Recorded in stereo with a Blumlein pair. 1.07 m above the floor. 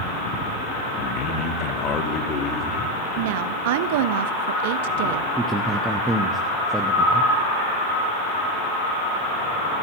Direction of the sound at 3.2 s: 50° right.